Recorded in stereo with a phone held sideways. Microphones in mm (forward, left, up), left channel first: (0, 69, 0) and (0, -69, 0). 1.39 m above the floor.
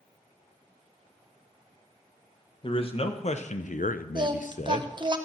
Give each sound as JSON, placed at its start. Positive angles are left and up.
{"t": 2.6, "sound": "a man speaking", "side_deg": 40, "distance_m": 1.3}
{"t": 4.2, "sound": "singing", "side_deg": -35, "distance_m": 0.8}